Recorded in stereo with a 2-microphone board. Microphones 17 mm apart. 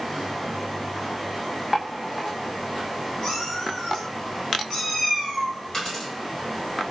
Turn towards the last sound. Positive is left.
turn(degrees=45)  # may be behind; listen again after turning